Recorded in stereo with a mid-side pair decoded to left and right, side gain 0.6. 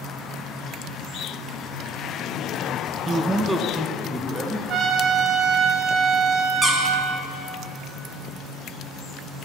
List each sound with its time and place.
3.1 s a man speaking: 25° right, 0.5 m; by 4.6 s 15° left, 1.8 m
4.7 s a trumpet: 40° right, 2.0 m
6.6 s a squeak: straight ahead, 1.9 m